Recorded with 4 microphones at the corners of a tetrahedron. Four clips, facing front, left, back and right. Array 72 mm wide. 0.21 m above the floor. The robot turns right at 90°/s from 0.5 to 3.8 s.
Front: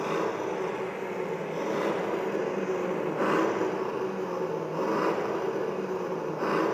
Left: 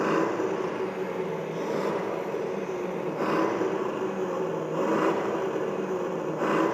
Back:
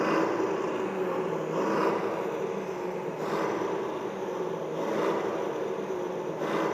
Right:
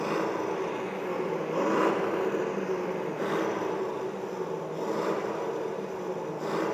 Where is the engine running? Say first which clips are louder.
Left 4 dB, back 3 dB; 125° left, 1.0 m; by 6.8 s 65° left, 1.0 m.